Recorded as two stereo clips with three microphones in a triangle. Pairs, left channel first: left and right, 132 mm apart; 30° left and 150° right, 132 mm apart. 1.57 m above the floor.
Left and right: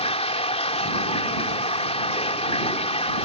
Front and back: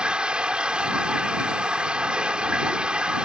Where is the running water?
130° left.